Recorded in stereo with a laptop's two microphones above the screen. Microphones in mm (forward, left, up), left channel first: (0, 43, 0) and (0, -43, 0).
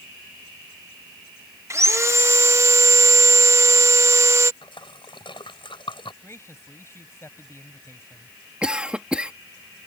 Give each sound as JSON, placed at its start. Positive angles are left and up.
{"t": 1.7, "sound": "sawing", "side_deg": -35}
{"t": 4.6, "sound": "a splash", "side_deg": 75}
{"t": 6.2, "sound": "a man speaking", "side_deg": 30}
{"t": 8.6, "sound": "a cough", "side_deg": -10}